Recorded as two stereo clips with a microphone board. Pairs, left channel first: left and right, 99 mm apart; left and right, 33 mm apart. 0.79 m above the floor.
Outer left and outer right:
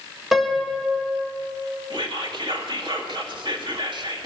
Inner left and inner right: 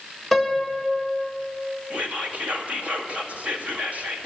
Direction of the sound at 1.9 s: 55° right (ahead or behind).